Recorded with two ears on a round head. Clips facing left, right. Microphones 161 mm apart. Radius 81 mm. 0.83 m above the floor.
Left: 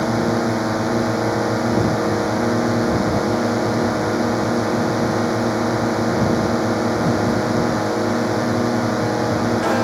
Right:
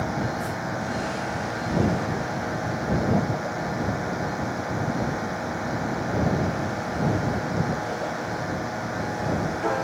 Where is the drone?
70° left (ahead or behind).